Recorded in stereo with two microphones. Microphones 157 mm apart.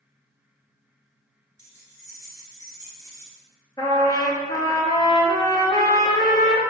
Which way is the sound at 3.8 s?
25° left (ahead or behind).